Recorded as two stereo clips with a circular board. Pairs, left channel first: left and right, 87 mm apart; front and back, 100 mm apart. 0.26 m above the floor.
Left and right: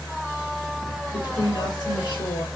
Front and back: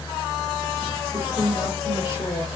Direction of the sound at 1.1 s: 55° left.